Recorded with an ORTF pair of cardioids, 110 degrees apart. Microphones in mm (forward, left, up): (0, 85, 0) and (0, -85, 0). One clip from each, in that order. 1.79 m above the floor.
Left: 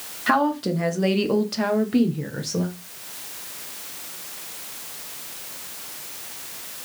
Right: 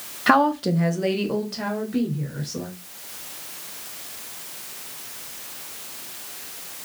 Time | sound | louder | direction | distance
0.3 | a woman speaking | right 3 dB | 30° right | 0.8 m